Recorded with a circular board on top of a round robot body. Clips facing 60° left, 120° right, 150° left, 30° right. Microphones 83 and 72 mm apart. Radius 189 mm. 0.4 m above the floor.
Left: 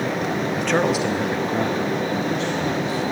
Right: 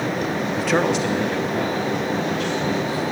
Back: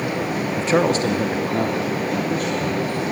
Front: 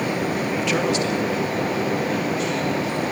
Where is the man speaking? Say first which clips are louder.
Right 1 dB, back 6 dB; 170° left, 0.9 m; by 3.0 s 115° left, 2.0 m.